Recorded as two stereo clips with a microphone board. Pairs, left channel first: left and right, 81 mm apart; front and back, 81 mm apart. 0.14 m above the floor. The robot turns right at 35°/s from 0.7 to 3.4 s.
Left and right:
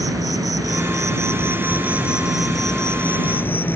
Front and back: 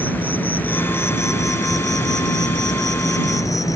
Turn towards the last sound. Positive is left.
turn(degrees=30)